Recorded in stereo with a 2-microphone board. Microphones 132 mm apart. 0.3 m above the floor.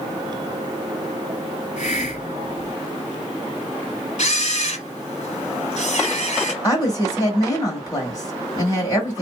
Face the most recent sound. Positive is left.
turn(degrees=30)  # may be behind; listen again after turning